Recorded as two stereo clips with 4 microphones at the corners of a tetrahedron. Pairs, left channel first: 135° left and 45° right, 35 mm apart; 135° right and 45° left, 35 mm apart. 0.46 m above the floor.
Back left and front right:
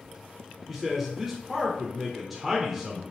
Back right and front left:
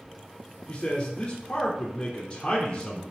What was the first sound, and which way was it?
A man speaking, 125° right.